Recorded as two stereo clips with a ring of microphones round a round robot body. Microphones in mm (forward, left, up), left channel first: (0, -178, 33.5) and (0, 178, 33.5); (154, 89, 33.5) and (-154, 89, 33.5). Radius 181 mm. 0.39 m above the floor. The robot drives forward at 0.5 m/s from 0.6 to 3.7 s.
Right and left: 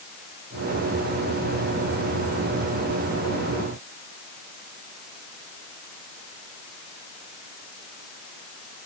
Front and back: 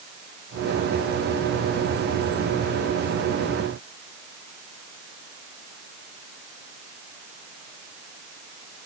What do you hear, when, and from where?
Only background noise.